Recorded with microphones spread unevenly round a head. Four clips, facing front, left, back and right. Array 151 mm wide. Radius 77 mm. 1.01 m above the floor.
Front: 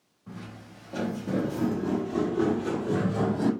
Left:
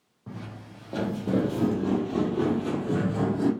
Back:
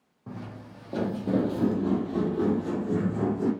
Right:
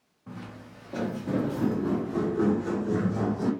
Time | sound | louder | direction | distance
0.3 | footsteps | left 1 dB, back 3 dB | 155° left | 1.6 m